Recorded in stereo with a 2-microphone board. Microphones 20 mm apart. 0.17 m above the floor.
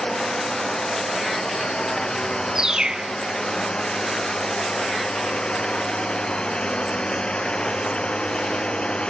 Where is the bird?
35° right (ahead or behind).